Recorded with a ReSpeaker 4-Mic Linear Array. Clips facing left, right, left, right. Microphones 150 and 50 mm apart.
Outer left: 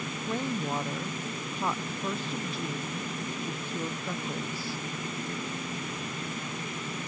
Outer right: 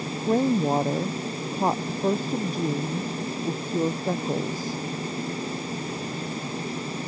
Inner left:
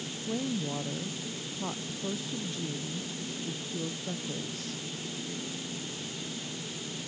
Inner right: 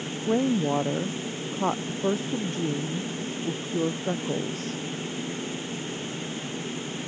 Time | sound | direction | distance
0.3 | a woman speaking | 45° right (ahead or behind) | ?